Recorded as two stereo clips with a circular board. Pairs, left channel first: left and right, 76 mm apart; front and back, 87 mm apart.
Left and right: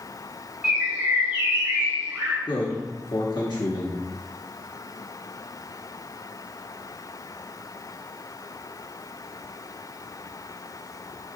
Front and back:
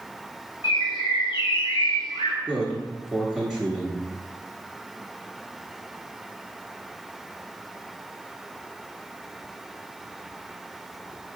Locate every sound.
0.6 s a bird: 15° right, 1.8 m
2.5 s a man speaking: 85° left, 0.9 m